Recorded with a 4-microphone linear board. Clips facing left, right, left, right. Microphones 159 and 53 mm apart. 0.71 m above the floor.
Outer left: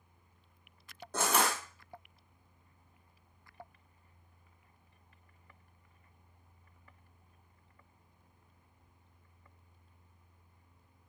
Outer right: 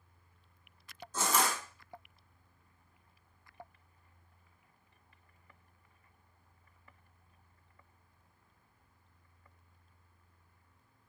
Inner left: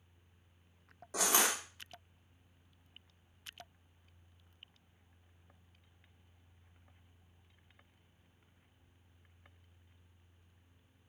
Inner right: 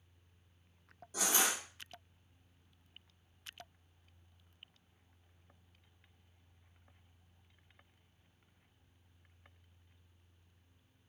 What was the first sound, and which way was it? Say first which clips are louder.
Crushing: outer left 1 dB, inner left 2 dB; 65° left (ahead or behind).